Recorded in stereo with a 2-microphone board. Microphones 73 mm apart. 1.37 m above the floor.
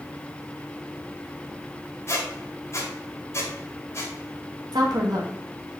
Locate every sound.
2.1 s a squeak: 45° left (ahead or behind), 2 m
4.7 s a woman speaking: 85° right, 2 m